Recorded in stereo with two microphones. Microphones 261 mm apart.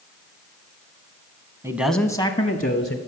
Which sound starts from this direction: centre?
A man speaking, at 1.6 s.